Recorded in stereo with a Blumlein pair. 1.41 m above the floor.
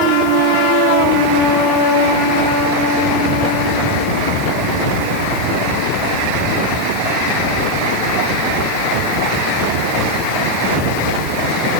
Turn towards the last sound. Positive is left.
No sound to turn to.